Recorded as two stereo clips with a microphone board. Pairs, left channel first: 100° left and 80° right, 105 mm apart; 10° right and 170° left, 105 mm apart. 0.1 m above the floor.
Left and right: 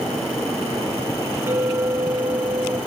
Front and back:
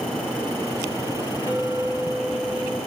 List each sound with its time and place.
1.5 s a clink: 140° right, 7 m